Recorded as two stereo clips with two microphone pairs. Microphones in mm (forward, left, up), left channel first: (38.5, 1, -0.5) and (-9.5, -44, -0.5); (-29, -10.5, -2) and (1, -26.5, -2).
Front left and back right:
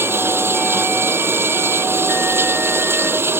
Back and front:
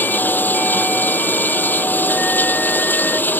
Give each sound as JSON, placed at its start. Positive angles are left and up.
{"t": 0.0, "sound": "running water", "azimuth_deg": 170}